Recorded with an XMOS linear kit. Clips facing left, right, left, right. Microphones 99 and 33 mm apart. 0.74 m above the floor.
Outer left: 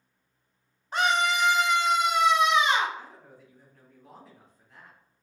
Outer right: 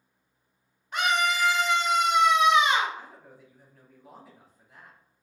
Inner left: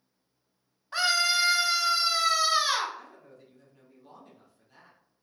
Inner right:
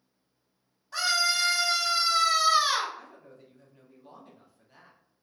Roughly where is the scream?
Left.